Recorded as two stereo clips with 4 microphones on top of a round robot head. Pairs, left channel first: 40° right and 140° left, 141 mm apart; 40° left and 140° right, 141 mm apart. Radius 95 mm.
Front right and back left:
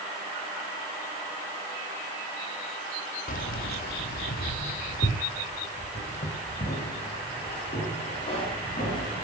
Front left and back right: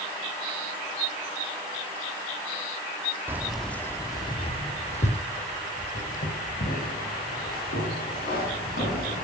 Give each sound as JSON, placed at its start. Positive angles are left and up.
{"t": 3.3, "sound": "keys jangling", "azimuth_deg": -70, "distance_m": 1.4}